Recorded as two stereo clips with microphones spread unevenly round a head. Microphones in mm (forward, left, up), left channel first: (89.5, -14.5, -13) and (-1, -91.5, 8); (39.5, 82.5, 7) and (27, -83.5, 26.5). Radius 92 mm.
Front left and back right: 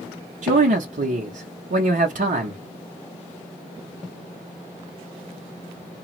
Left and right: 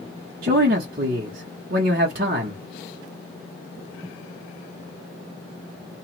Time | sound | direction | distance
0.4 | a man speaking | 140° right | 0.9 m